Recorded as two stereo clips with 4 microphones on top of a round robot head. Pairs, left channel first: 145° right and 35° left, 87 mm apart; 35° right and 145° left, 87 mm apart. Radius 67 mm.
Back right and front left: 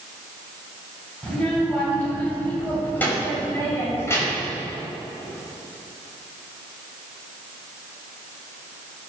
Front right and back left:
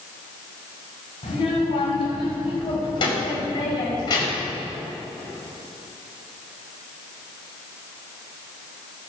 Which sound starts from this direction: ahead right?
A child speaking, at 1.2 s.